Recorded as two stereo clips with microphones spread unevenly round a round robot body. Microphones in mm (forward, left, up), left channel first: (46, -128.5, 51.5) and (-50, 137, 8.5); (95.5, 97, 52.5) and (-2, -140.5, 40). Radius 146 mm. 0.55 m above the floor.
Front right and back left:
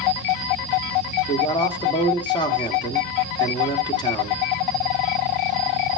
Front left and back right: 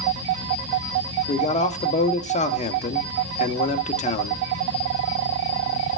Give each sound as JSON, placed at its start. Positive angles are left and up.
{"t": 1.3, "sound": "a man speaking", "azimuth_deg": 10, "distance_m": 1.4}